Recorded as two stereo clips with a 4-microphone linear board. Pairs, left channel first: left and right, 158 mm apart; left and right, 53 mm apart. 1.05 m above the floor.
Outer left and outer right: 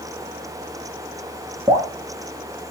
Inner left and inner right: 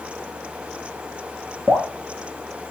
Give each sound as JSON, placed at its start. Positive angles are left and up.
{"t": 1.7, "sound": "dripping", "side_deg": -30, "distance_m": 1.7}